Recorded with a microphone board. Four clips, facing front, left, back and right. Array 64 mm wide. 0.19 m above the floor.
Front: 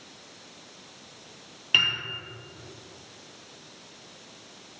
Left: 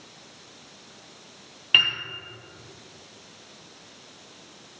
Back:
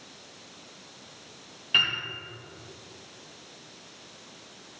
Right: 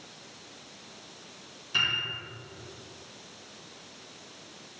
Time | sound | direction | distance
1.7 | a piano | 80° left | 2.5 m